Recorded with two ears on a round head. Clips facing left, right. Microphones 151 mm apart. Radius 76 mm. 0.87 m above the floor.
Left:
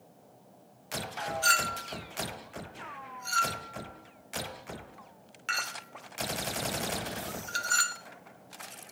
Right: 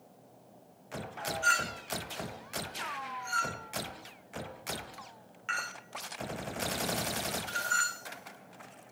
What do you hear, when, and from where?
1.4 s a clink: 45° left (ahead or behind), 1.3 m